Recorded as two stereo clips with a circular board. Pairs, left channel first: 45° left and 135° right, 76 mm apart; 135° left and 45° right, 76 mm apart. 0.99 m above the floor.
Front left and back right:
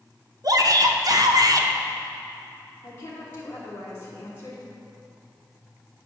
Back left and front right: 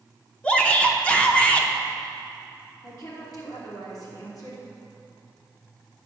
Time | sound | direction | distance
0.4 | a shout | 155° right | 0.9 m
2.8 | a woman speaking | 100° left | 3 m